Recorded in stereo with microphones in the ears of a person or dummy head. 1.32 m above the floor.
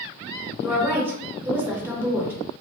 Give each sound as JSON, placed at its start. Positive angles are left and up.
{"t": 0.6, "sound": "a woman speaking", "side_deg": -15, "distance_m": 1.0}